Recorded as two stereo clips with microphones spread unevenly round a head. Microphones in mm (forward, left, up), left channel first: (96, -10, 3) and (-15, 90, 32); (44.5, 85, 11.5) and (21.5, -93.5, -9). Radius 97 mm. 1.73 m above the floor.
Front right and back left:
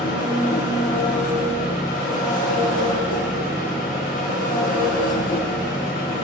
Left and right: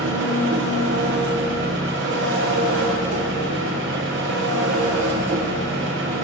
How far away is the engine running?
About 1.2 m.